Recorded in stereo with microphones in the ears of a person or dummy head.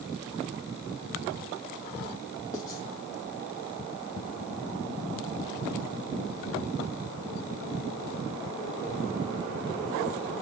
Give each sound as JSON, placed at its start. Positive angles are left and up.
{"t": 2.5, "sound": "writing", "side_deg": 20, "distance_m": 2.0}